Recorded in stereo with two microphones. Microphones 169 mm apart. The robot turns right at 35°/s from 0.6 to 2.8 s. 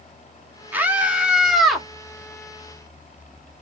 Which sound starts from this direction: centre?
A scream, at 0.7 s.